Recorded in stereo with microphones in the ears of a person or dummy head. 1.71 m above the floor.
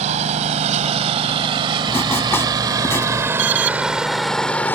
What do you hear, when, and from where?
0.0 s a lawn mower: 45° right (ahead or behind); by 4.8 s 5° left (ahead or behind)
1.9 s writing: 10° left (ahead or behind)
3.4 s an alarm: 35° right (ahead or behind)